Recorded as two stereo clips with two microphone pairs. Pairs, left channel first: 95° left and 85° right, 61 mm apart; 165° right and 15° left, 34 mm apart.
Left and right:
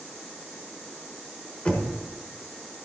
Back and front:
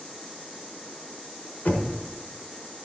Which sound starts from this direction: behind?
Knocking, at 1.6 s.